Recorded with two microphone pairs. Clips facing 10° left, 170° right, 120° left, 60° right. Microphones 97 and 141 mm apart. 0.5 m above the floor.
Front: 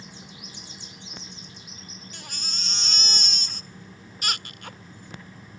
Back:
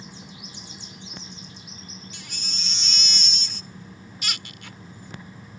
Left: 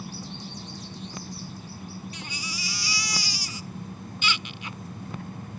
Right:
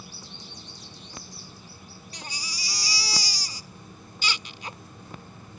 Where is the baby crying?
15° right.